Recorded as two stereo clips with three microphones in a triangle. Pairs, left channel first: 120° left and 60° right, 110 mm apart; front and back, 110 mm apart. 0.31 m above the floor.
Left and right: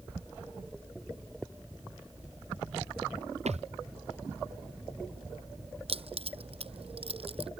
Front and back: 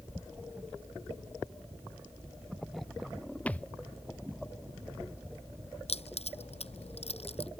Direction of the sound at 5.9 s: 30° right.